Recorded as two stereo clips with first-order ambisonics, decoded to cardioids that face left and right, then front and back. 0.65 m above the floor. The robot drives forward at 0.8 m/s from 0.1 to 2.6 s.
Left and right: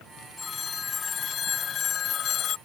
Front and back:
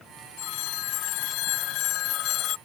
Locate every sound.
0.4 s a phone ringing: 20° left; by 2.6 s 40° left